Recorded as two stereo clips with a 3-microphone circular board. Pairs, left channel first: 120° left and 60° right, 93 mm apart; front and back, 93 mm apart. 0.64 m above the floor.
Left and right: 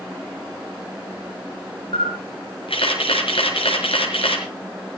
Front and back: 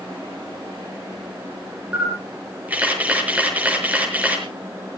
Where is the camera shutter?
105° left, 5.5 m.